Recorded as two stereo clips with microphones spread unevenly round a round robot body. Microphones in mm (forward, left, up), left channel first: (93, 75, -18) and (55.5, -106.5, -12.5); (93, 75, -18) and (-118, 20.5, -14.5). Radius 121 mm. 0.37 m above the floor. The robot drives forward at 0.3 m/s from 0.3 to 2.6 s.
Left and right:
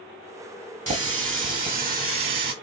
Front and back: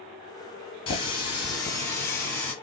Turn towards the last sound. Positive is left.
turn(degrees=-70)